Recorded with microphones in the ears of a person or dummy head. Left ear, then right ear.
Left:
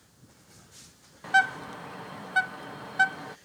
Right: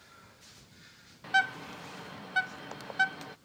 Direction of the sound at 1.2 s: 5° left (ahead or behind).